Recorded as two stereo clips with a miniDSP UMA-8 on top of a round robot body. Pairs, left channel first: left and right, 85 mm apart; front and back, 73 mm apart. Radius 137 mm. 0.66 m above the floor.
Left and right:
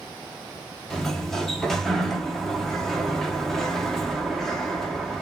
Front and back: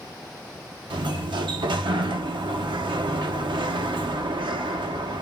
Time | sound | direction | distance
0.9 | a sliding door | 175° left | 0.6 m